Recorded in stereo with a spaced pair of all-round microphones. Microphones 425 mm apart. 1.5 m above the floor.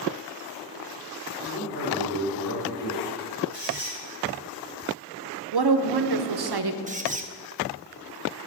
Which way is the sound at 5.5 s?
65° right (ahead or behind).